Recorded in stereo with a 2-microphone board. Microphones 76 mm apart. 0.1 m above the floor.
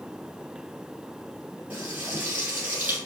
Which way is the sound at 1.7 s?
20° right (ahead or behind).